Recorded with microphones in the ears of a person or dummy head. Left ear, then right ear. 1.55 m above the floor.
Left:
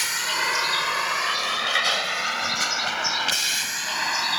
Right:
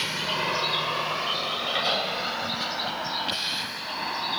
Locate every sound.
0.0 s a vehicle: 65° left (ahead or behind); by 4.4 s 70° left (ahead or behind)